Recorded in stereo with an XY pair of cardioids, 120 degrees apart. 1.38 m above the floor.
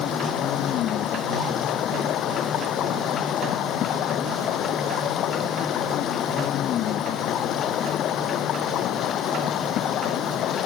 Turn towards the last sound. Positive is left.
turn(degrees=65)